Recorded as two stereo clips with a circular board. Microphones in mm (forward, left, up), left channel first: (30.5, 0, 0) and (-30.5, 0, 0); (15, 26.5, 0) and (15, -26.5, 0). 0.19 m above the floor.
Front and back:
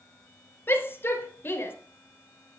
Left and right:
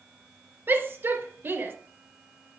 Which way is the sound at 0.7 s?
50° right.